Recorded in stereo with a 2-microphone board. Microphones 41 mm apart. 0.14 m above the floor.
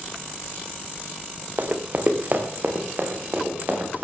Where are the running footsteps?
45° right (ahead or behind), 2.0 m.